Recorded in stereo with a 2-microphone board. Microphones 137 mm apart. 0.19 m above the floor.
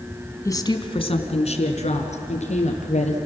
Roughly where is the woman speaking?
Left.